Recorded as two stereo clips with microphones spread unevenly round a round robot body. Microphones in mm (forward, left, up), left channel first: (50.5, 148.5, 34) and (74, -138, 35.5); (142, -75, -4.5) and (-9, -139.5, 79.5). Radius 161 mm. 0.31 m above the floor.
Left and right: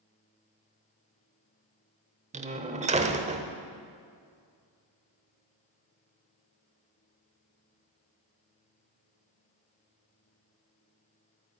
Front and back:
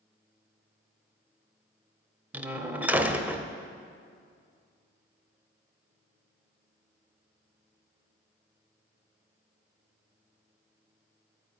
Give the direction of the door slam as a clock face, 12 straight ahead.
1 o'clock.